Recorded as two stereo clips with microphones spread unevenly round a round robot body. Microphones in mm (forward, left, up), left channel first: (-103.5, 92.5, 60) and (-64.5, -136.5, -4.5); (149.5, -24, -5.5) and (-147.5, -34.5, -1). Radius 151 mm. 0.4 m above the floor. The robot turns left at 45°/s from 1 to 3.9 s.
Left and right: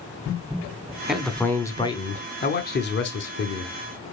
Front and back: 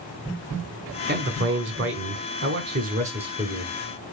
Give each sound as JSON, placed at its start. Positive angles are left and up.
{"t": 1.1, "sound": "a man speaking", "azimuth_deg": -145, "distance_m": 1.1}